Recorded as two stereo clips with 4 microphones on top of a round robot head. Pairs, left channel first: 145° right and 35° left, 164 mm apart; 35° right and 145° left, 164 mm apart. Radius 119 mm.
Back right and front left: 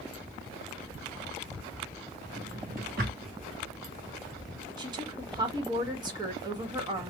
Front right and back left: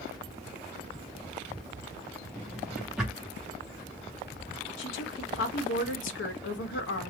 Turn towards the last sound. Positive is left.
turn(degrees=-30)